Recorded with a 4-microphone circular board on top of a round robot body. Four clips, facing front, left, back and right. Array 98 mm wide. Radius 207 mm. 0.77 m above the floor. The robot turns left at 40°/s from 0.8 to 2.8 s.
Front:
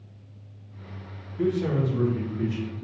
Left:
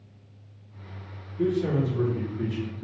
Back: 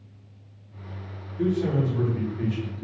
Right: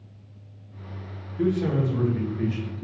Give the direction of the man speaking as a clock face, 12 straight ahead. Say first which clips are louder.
Right 1 dB, even; 2 o'clock.